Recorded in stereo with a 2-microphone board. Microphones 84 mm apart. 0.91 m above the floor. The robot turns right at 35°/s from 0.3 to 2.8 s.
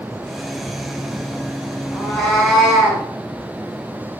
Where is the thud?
I don't hear a thud.